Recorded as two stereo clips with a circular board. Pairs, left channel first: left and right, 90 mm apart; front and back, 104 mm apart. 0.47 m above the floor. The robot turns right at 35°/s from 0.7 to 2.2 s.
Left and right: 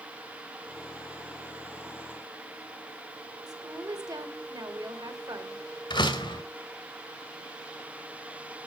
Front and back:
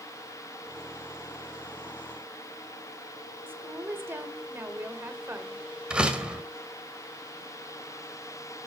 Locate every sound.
3.5 s a woman speaking: 115° right, 2.0 m
5.9 s a door slam: 100° left, 1.8 m